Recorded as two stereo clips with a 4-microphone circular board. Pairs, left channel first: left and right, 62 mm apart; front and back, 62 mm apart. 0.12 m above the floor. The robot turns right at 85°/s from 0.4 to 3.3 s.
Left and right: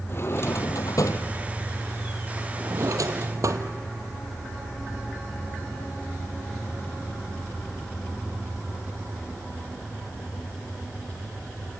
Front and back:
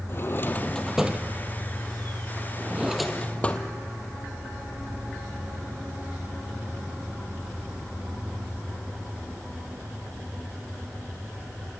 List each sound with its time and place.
0.1 s a drawer: 45° left, 1.5 m; by 3.7 s 65° right, 1.5 m